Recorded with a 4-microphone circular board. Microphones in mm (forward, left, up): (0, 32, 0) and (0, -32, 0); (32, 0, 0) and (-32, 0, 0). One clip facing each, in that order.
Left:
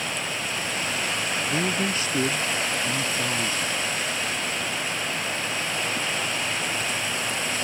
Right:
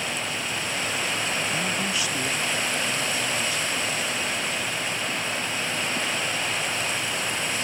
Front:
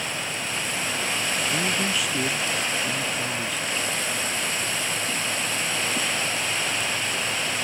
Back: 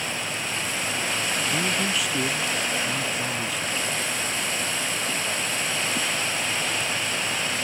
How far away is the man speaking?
About 0.5 m.